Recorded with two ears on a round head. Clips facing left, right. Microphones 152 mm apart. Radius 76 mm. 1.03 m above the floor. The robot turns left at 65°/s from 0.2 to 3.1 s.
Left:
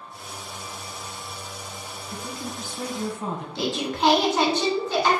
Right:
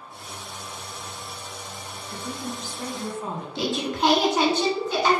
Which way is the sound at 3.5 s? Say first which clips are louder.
Right 1 dB; 10° right (ahead or behind).